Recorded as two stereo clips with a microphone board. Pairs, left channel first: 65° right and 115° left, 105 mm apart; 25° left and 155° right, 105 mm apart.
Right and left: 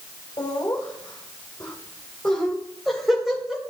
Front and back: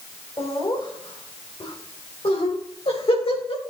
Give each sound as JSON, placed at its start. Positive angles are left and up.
{"t": 0.4, "sound": "laughter", "azimuth_deg": -25, "distance_m": 2.5}